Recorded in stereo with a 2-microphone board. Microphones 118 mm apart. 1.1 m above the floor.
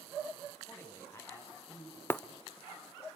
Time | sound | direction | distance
0.6 | a man speaking | 15° left (ahead or behind) | 8 m
2.1 | breaking glass | 20° left (ahead or behind) | 0.9 m